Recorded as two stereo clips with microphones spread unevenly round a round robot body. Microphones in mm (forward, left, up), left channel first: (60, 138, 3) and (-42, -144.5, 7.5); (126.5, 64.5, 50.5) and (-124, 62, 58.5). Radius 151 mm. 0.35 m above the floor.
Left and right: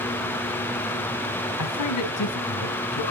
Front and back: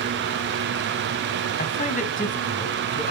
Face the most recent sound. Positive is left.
turn(degrees=55)